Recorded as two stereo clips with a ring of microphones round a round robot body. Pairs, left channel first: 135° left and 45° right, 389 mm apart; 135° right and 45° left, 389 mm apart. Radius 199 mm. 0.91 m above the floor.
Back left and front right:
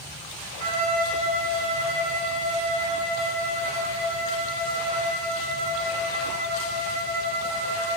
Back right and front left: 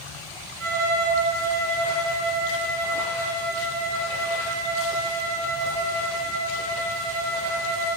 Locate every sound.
0.6 s a violin: 5° right, 5 m